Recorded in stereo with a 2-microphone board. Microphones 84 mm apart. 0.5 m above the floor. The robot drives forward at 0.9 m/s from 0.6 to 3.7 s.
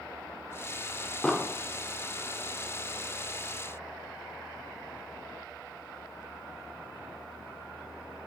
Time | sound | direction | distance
1.2 | an explosion | 5° left (ahead or behind) | 1.3 m